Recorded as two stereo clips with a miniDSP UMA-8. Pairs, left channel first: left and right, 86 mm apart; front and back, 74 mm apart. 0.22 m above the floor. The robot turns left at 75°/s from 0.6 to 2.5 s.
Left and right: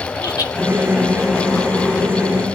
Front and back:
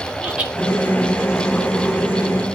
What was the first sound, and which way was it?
Laughter, 110° left.